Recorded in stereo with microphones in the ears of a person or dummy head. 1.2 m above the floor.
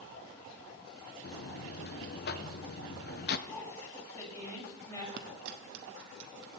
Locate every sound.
1.2 s a buzzer: 50° left (ahead or behind), 0.6 m
3.5 s a woman speaking: 20° left (ahead or behind), 5 m
5.2 s a dropped coin: 55° right (ahead or behind), 0.9 m